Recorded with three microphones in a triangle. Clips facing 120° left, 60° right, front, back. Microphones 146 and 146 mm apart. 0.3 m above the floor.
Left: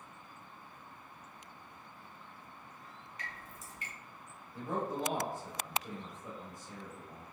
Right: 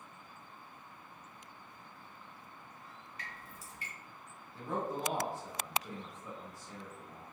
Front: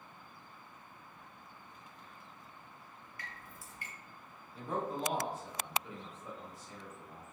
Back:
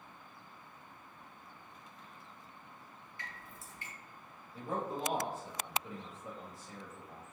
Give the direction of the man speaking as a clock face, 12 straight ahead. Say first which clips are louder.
Left 1 dB, front 1 dB; 6 o'clock.